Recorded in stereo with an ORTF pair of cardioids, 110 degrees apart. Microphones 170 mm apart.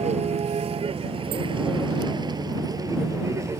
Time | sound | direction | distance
0.0 | a vehicle | 40° right | ?